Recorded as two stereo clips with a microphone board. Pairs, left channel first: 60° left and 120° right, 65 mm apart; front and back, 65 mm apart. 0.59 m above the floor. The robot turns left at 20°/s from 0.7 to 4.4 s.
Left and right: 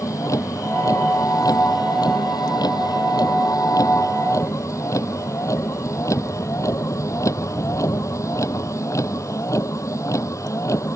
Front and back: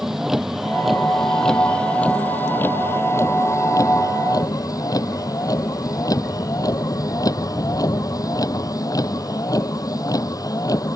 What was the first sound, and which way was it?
A vehicle, 95° left.